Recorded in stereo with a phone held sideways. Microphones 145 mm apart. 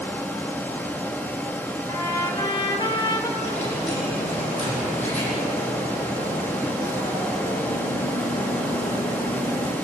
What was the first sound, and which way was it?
A fan, 10° left (ahead or behind).